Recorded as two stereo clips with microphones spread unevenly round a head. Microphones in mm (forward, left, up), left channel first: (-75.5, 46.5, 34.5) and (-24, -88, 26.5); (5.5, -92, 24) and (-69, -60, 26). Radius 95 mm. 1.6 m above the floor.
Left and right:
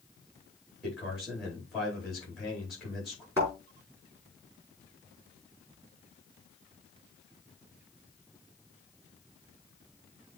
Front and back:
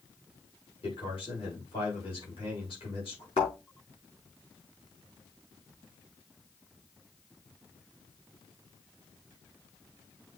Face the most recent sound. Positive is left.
turn(degrees=10)